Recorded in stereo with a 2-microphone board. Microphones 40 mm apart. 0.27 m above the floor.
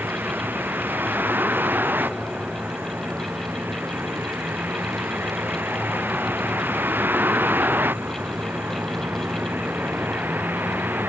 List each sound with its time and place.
0.0 s a vehicle: 55° right (ahead or behind)